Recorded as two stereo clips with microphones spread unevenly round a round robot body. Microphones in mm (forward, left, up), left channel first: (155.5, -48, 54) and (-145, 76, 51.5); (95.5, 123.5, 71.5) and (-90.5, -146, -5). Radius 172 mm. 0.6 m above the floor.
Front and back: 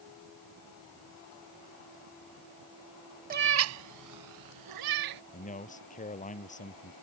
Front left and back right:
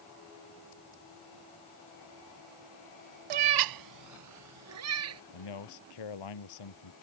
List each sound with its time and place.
3.3 s a cat meowing: 140° right; by 5.2 s 175° right
5.3 s a man speaking: 45° left